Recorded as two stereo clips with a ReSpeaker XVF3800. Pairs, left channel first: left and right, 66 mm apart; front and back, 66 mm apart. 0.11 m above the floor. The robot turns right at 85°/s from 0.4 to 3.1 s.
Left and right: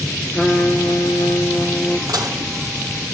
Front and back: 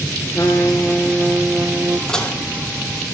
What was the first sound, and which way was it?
A trumpet, 15° left.